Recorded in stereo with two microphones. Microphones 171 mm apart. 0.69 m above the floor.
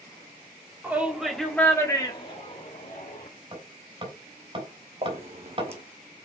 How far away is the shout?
About 2.0 m.